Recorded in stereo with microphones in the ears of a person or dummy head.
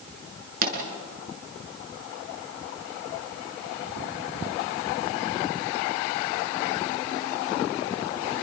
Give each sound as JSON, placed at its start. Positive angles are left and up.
{"t": 0.6, "sound": "a pop", "side_deg": -55, "distance_m": 6.0}